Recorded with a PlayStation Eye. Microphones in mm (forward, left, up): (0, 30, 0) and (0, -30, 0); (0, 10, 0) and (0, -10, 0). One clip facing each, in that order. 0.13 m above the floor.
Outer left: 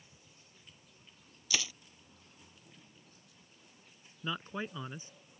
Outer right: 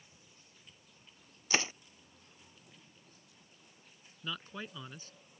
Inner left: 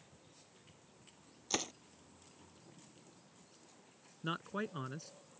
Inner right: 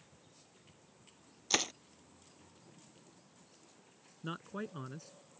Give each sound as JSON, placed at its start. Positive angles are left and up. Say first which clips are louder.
{"t": 1.5, "sound": "crushing", "louder": "outer right 4 dB, inner right 6 dB", "side_deg": -35}
{"t": 4.2, "sound": "a man speaking", "louder": "outer left 4 dB, inner left 2 dB", "side_deg": 20}